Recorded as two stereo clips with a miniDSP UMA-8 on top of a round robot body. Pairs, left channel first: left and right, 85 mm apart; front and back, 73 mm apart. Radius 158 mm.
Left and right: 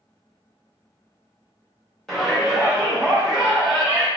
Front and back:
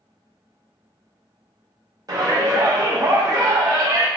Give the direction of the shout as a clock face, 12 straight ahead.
6 o'clock.